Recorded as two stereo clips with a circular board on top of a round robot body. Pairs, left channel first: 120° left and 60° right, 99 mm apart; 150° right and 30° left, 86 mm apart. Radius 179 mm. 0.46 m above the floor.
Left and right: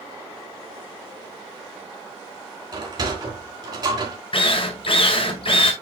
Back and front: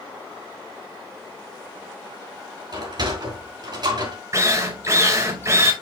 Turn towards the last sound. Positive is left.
turn(degrees=90)